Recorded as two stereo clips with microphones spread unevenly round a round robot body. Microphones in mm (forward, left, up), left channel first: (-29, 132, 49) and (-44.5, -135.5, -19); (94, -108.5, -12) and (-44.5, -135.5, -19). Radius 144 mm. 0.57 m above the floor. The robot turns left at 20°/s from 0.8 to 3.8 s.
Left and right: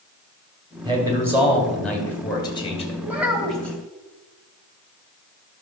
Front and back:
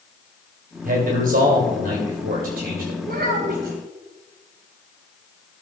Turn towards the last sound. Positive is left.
turn(degrees=175)